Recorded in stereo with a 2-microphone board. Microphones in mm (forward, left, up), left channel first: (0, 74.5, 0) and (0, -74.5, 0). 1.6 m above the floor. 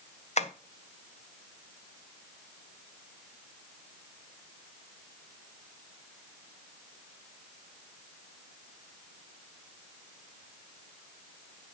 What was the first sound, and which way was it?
Tapping, 50° left (ahead or behind).